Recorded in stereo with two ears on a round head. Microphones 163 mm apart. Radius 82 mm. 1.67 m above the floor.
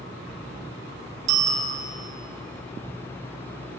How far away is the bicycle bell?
About 2.5 m.